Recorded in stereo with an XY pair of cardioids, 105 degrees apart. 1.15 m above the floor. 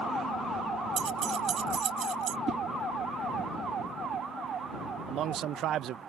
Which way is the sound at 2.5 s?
50° right.